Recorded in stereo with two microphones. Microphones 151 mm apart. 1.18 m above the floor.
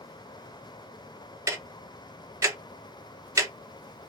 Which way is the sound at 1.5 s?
20° right (ahead or behind).